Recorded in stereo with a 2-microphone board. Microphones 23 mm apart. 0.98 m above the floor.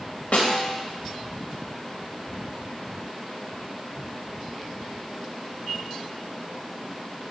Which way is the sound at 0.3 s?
75° left (ahead or behind).